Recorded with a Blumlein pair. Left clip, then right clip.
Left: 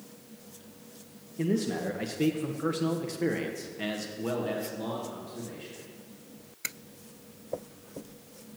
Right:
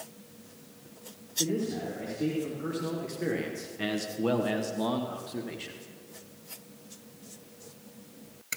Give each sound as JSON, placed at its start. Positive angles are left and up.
{"t": 1.4, "sound": "a man speaking", "azimuth_deg": 50, "distance_m": 1.4}